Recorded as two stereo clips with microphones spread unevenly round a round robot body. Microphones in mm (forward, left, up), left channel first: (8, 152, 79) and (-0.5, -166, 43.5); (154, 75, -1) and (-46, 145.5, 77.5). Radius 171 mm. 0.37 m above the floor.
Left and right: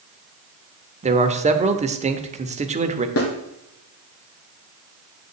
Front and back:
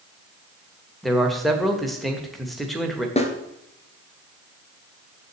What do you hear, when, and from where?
1.0 s a man speaking: 70° right, 1.1 m
3.2 s a snare drum: 40° left, 1.8 m